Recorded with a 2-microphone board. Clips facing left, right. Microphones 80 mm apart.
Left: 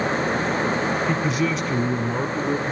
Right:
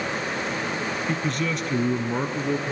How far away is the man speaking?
About 1.0 m.